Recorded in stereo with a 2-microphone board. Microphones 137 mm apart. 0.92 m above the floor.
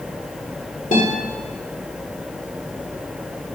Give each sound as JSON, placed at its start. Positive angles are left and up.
{"t": 0.9, "sound": "a guitar", "side_deg": 65, "distance_m": 1.9}